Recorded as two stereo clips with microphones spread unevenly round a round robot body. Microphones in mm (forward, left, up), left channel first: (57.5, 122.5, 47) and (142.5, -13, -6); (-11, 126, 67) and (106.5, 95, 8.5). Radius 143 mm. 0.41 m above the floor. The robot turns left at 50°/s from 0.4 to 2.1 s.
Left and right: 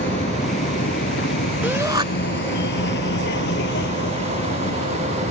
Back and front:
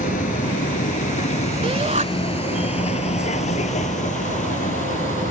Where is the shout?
25° left; by 2.0 s straight ahead.